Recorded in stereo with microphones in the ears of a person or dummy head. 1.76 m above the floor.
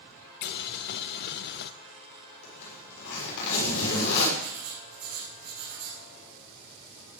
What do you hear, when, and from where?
0.4 s boiling: 60° left (ahead or behind), 0.8 m
2.4 s a zipper: 75° left (ahead or behind), 7 m
4.4 s writing: 50° right (ahead or behind), 5.5 m